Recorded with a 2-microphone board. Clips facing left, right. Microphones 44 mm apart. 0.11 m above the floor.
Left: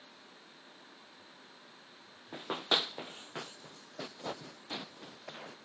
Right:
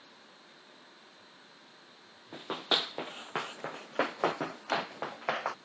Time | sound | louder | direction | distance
2.3 | running footsteps | right 1 dB | 5° left (ahead or behind) | ?